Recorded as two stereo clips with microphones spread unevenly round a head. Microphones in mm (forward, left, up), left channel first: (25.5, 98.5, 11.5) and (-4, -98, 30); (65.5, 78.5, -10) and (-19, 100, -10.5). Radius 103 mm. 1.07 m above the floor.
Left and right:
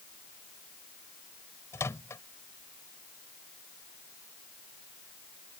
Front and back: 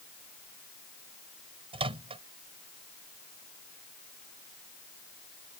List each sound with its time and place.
1.7 s a microwave: 160° left